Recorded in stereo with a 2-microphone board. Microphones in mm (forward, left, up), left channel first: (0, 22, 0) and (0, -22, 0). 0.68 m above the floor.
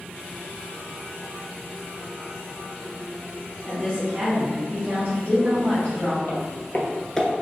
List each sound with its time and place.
3.6 s a woman speaking: 35° right (ahead or behind), 1.9 m; by 6.2 s 25° right (ahead or behind), 3.5 m
6.3 s footsteps: 55° left (ahead or behind), 1.3 m; by 7.3 s centre (ahead or behind), 0.6 m